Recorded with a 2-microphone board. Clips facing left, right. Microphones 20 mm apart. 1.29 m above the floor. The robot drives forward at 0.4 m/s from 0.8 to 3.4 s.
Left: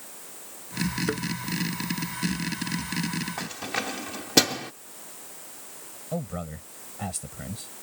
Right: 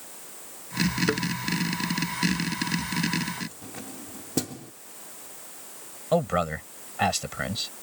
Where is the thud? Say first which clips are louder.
Right 3 dB; 10° right (ahead or behind).